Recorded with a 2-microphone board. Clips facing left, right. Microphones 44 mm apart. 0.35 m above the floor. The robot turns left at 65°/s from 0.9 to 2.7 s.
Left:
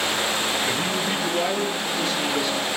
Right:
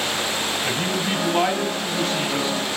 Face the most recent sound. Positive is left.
turn(degrees=-150)